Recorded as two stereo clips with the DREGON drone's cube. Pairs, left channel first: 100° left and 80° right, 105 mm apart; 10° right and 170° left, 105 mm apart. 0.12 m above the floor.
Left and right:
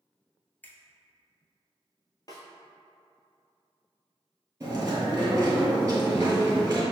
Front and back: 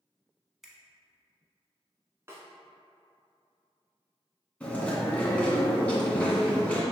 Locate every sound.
0.6 s a finger snap: 90° left, 0.8 m
2.3 s a snare drum: 125° left, 1.2 m
4.6 s chewing: 70° right, 1.8 m